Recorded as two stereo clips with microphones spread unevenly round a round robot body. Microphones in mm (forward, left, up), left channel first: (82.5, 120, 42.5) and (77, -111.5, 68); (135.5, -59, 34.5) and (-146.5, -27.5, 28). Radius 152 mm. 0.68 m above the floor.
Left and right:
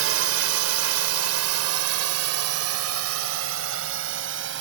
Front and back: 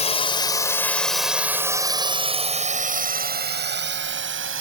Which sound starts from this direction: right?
A drone, at 0.0 s.